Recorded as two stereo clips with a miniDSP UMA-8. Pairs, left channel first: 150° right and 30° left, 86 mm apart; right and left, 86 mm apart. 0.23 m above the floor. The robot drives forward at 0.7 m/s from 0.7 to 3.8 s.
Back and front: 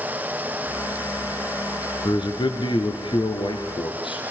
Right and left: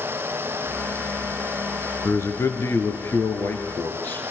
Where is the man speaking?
140° right, 3 m; by 4.2 s 150° right, 4 m.